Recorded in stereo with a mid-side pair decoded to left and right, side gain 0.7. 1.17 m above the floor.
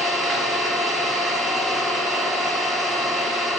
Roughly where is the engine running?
Ahead.